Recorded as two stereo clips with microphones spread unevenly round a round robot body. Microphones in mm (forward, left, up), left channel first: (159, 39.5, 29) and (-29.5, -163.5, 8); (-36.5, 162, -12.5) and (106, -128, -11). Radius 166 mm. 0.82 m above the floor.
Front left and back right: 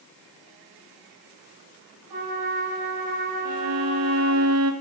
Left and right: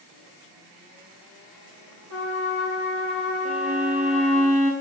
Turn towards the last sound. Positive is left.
turn(degrees=-130)